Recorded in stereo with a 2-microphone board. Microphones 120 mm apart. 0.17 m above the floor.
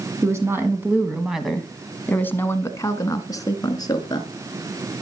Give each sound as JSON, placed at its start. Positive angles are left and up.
{"t": 0.2, "sound": "a woman speaking", "side_deg": -25, "distance_m": 1.6}